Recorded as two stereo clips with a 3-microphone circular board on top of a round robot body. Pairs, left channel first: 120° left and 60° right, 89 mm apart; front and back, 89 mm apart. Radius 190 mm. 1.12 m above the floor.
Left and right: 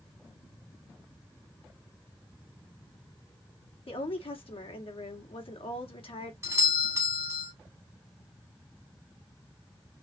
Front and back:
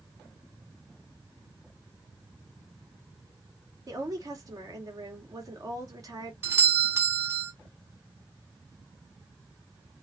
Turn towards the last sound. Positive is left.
turn(degrees=-120)